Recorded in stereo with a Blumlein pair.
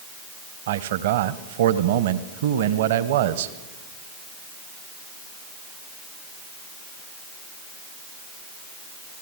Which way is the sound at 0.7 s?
55° right.